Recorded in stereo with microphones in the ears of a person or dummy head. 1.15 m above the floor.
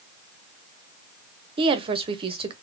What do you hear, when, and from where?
1.6 s a woman speaking: 35° right (ahead or behind), 0.5 m